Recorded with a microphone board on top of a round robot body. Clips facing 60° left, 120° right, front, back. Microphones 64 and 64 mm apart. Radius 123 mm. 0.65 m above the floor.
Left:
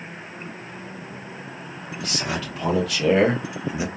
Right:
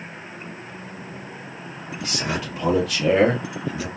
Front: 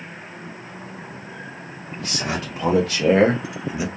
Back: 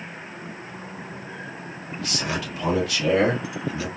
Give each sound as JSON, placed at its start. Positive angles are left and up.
{"t": 2.0, "sound": "a man speaking", "azimuth_deg": -45, "distance_m": 1.4}